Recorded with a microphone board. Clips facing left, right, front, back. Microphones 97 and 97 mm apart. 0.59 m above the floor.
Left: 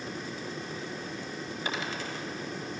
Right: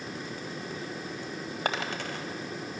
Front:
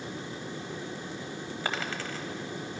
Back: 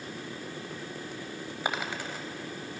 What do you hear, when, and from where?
1.6 s a dropped coin: 105° right, 0.8 m